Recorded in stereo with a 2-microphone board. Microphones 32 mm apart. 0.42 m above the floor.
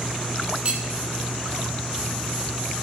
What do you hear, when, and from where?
0.7 s cutlery clinking: 40° right (ahead or behind), 1.7 m